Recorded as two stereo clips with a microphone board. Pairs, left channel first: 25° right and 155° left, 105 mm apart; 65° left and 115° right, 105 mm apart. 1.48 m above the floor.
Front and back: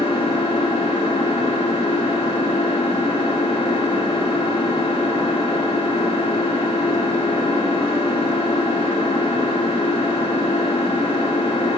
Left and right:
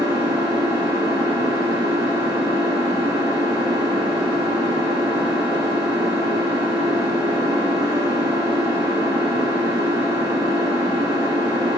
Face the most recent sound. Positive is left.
turn(degrees=15)